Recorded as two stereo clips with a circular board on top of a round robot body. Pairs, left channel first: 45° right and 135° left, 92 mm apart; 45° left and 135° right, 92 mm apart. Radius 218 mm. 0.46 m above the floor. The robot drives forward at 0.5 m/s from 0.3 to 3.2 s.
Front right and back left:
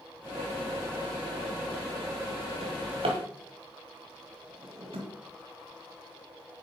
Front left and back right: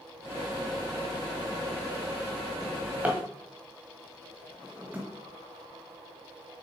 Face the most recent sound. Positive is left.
turn(degrees=150)